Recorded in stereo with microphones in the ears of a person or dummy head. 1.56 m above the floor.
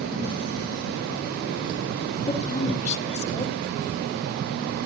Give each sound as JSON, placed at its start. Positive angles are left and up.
{"t": 2.3, "sound": "a woman speaking", "side_deg": 35, "distance_m": 2.0}